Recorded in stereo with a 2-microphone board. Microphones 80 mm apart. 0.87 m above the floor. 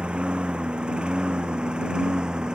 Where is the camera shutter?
I don't hear a camera shutter.